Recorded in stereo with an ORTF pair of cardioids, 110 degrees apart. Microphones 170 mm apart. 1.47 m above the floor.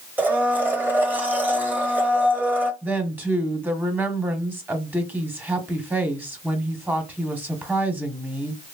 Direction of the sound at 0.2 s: 10° right.